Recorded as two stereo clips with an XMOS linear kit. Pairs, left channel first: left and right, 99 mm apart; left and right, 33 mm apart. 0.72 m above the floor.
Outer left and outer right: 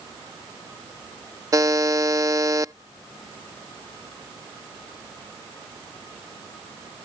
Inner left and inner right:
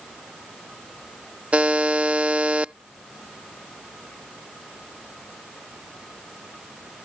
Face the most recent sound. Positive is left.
turn(degrees=-35)  # may be behind; listen again after turning